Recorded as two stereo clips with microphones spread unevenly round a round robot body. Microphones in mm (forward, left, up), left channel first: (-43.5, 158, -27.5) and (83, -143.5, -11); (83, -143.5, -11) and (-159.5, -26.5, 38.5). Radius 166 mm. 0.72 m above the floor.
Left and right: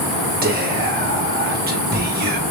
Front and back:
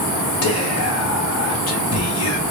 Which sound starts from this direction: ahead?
Whispering, at 0.4 s.